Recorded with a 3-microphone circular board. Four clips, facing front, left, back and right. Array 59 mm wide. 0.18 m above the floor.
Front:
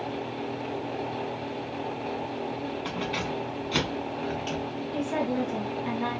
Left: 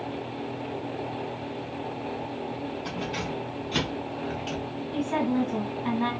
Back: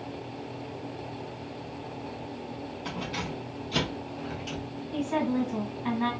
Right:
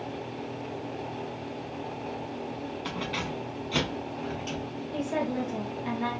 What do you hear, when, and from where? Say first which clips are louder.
2.9 s keys jangling: right 1 dB, front 1 dB; 45° right, 1.1 m; by 4.7 s 25° left, 1.5 m
4.9 s a woman speaking: left 4 dB, back 1 dB; 120° left, 1.5 m